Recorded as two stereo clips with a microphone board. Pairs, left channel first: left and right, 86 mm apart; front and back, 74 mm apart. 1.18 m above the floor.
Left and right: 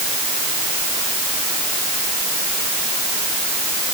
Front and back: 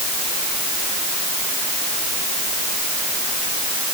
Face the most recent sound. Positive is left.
No sound to turn to.